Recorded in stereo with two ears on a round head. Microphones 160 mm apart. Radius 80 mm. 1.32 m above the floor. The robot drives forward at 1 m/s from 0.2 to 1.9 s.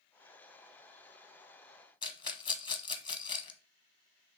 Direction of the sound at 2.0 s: 25° left (ahead or behind).